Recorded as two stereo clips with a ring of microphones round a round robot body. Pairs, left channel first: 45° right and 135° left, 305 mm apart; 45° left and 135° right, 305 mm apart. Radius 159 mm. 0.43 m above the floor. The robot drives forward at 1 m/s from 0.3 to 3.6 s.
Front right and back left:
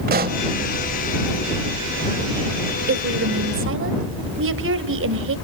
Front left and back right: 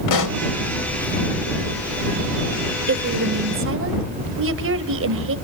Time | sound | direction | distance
0.1 | a pop | 75° left | 1.0 m
2.9 | a woman speaking | straight behind | 1.7 m